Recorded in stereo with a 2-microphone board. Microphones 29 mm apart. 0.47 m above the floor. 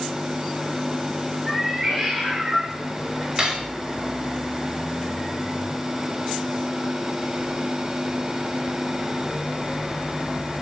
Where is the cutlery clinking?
30° right (ahead or behind), 1.4 m.